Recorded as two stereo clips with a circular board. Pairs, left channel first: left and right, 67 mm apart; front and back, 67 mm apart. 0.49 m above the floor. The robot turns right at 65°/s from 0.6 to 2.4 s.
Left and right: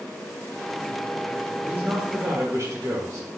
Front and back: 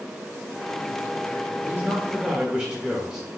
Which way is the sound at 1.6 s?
155° right.